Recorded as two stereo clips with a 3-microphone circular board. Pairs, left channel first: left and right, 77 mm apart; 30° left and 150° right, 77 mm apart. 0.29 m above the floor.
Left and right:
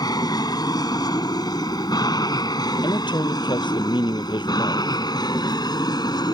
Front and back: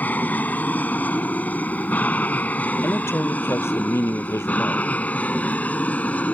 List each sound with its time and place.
0.0 s an aircraft: 95° left; by 6.3 s 100° left
2.8 s a man speaking: 90° left